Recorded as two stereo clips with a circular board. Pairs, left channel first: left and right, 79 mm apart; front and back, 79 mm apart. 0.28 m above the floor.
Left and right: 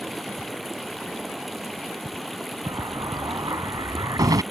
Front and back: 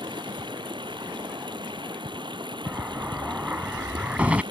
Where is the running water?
Straight behind.